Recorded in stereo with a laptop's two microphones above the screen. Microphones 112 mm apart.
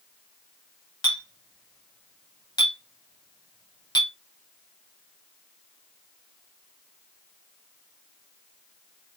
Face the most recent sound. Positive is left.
turn(degrees=40)  # may be behind; listen again after turning